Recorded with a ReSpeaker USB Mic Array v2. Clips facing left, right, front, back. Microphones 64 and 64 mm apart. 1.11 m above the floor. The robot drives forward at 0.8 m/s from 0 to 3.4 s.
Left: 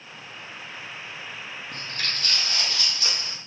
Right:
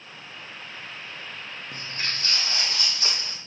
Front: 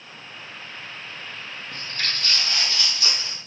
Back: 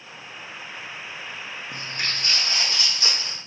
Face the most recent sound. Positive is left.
turn(degrees=-135)